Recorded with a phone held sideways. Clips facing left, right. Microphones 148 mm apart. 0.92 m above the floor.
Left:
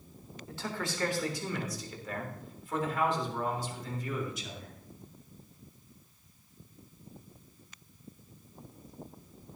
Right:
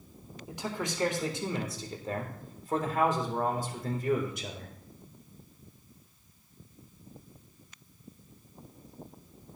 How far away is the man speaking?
About 3.5 m.